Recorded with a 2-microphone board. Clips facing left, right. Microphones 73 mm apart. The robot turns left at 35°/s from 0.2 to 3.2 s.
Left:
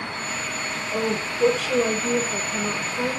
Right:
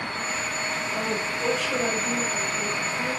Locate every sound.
0.9 s a woman speaking: 130° left, 3.5 m; by 3.2 s 50° left, 3.5 m